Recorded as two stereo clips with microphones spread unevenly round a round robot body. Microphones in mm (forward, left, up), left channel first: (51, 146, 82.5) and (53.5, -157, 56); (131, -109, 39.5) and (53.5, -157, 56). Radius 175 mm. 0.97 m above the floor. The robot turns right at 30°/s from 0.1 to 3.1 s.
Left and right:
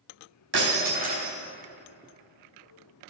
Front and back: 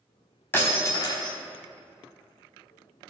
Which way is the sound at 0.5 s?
35° right.